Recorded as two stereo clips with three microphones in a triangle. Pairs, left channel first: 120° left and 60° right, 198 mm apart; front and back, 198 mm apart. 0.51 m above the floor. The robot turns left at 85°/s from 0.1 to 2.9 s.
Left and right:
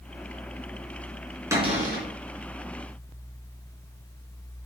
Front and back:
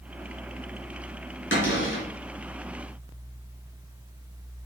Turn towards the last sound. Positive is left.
turn(degrees=-100)